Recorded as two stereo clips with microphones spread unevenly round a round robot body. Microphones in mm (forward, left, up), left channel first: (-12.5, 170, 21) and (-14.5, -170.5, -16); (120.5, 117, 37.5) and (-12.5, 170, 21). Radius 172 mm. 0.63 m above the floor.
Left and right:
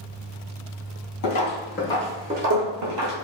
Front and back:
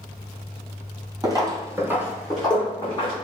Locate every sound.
1.2 s footsteps: 95° left, 0.9 m; by 3.1 s 85° right, 1.0 m